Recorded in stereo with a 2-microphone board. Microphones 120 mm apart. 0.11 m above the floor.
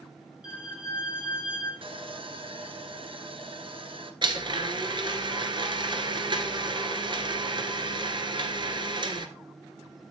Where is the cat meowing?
No cat meowing in this recording.